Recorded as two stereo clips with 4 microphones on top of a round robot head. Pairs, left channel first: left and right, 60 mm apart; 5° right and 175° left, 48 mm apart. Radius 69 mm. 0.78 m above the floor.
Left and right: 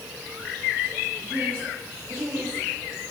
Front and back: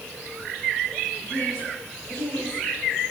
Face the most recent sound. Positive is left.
turn(degrees=-45)